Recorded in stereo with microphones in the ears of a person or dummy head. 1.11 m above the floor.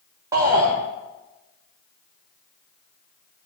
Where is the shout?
15° right (ahead or behind), 1.8 m.